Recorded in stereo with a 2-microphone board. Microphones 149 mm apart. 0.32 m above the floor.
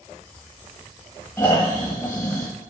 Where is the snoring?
20° left (ahead or behind), 0.8 m.